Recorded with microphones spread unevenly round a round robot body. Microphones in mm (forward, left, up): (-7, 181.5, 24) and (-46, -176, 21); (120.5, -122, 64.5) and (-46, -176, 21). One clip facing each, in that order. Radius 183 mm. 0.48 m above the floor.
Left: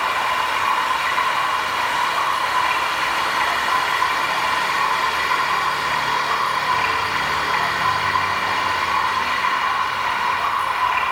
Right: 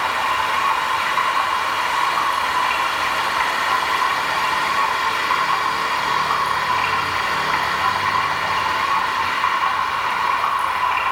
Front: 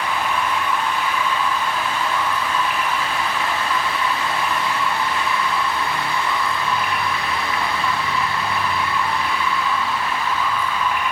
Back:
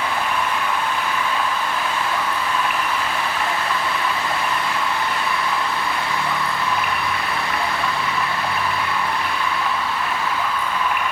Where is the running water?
130° right, 7 m.